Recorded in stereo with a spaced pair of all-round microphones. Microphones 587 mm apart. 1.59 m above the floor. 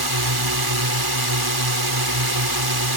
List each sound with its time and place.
0.0 s a drone: 40° right (ahead or behind)